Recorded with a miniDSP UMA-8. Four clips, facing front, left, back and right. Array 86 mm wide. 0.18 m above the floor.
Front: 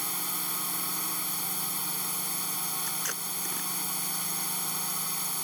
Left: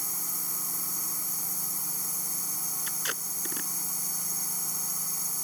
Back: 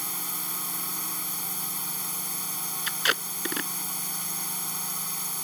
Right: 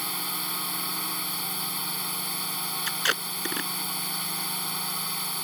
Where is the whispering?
No whispering in this recording.